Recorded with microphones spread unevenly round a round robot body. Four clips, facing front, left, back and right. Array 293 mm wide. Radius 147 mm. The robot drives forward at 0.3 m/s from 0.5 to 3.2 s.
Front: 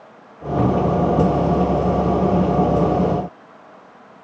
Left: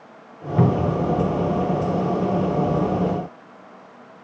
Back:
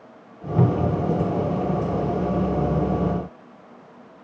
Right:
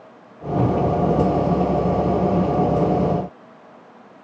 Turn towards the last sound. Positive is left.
turn(degrees=150)